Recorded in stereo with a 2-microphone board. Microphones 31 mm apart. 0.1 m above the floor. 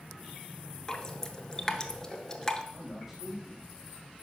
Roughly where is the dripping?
Left.